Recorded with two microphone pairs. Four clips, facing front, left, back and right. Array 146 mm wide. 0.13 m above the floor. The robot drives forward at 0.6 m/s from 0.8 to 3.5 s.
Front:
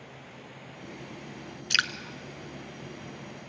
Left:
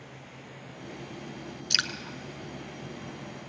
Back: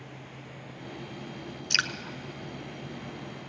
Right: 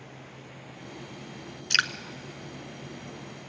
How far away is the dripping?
About 0.9 m.